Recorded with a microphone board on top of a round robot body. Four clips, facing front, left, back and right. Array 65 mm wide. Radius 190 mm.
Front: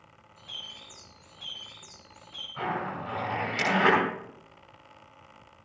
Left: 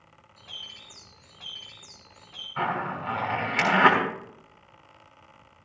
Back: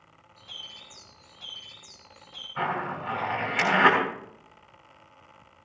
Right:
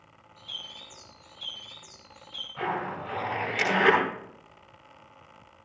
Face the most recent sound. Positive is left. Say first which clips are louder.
# left 3 dB, back 2 dB
turn(degrees=115)